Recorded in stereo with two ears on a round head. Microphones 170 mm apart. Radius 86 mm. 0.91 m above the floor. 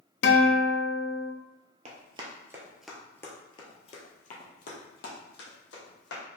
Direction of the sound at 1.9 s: 35° right (ahead or behind).